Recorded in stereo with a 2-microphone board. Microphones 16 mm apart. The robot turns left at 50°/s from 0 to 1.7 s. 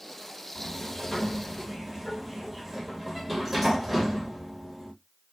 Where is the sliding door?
45° left, 1.1 m; by 4.9 s 10° right, 1.1 m.